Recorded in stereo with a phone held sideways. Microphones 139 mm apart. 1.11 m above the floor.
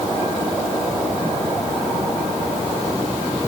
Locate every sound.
Only background noise.